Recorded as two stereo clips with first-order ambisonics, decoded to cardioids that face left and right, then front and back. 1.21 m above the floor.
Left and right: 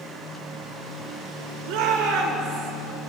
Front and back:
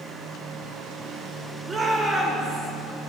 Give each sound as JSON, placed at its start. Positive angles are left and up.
{"t": 1.7, "sound": "a shout", "azimuth_deg": -105, "distance_m": 1.0}